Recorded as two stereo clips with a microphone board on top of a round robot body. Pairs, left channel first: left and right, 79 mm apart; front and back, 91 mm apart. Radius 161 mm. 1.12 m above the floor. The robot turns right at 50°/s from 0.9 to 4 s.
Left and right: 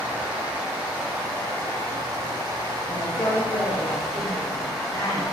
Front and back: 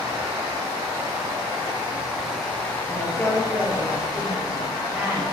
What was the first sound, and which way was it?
Running water, 160° right.